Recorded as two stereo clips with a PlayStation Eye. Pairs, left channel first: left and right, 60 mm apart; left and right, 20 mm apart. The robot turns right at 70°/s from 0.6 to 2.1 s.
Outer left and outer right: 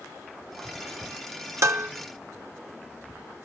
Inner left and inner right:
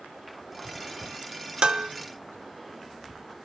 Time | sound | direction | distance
1.6 | dishes clattering | 55° right (ahead or behind) | 0.5 m